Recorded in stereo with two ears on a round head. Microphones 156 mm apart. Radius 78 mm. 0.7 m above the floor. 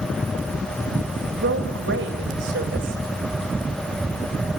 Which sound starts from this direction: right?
A woman speaking, at 1.3 s.